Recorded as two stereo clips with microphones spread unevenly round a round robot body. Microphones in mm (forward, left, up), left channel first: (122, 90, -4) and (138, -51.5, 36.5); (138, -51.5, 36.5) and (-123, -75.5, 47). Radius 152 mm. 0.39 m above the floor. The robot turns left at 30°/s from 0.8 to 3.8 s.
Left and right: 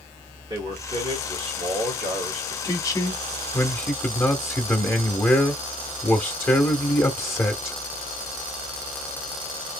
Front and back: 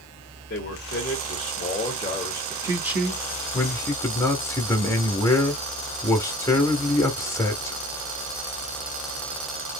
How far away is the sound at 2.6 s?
About 0.9 m.